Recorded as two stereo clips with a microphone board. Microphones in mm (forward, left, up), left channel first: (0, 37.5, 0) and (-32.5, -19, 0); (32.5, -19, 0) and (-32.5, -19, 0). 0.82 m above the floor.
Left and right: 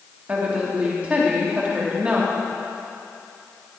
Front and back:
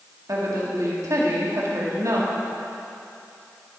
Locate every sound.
0.3 s a woman speaking: 175° left, 1.9 m